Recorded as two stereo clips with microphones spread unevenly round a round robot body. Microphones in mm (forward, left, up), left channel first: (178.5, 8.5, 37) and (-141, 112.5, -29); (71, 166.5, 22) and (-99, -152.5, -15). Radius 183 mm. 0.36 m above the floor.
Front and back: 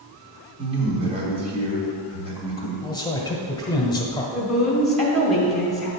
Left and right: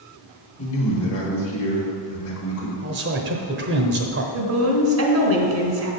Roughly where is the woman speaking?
Behind right.